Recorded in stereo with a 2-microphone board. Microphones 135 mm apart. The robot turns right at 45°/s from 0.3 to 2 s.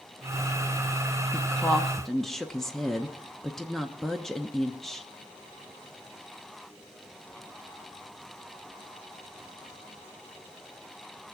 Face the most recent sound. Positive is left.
turn(degrees=5)  # may be behind; listen again after turning